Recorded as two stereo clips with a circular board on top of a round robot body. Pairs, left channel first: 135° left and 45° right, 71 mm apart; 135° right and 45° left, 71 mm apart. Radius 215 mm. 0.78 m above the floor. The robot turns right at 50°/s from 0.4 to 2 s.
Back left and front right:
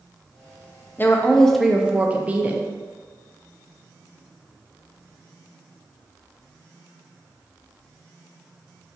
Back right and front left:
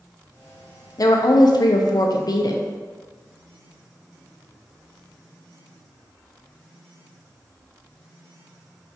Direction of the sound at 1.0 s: 165° right.